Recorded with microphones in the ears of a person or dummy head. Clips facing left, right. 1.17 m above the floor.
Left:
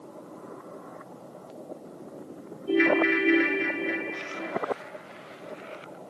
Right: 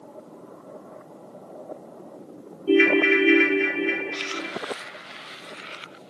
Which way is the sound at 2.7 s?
30° right (ahead or behind).